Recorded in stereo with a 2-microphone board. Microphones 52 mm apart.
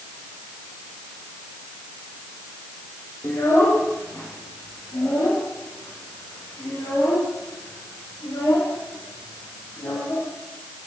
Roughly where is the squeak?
I don't hear a squeak.